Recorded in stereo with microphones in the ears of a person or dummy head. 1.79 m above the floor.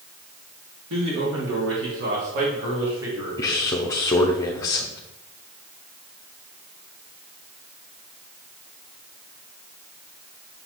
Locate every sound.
0.9 s a man speaking: 70° right (ahead or behind), 1.9 m; by 3.7 s 10° right (ahead or behind), 2.5 m
3.4 s a man speaking: 10° left (ahead or behind), 0.6 m